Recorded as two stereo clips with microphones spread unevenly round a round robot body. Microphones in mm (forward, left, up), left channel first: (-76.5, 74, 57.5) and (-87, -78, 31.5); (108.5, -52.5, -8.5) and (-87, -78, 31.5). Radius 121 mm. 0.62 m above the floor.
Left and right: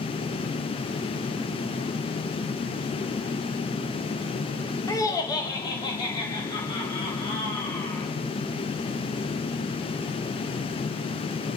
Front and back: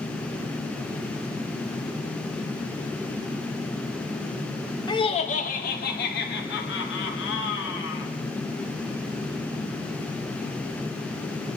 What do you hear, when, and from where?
4.9 s laughter: 20° left, 0.9 m; by 8.1 s 15° left, 3 m